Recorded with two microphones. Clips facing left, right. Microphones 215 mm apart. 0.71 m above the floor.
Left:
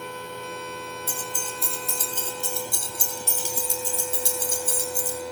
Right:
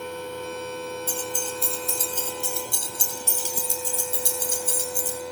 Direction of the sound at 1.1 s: 10° left (ahead or behind).